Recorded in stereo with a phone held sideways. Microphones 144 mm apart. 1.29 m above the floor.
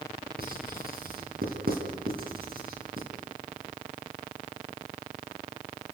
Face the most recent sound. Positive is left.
turn(degrees=-80)